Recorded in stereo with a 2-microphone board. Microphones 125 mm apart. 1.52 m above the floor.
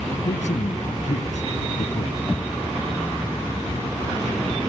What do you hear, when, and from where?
0.2 s a man speaking: 75° left (ahead or behind)
2.3 s knocking: 10° left (ahead or behind)